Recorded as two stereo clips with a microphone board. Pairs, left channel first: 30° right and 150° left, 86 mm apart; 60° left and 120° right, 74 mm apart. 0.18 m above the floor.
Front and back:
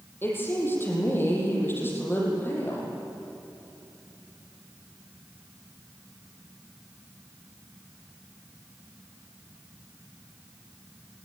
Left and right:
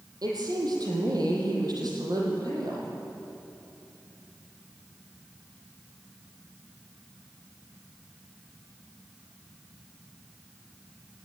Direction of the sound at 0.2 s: 95° right.